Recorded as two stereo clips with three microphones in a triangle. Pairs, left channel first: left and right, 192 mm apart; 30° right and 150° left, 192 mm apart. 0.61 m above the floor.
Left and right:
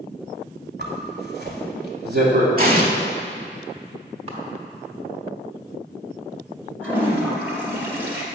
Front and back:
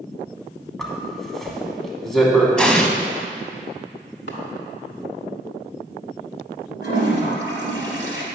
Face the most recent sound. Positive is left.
turn(degrees=-10)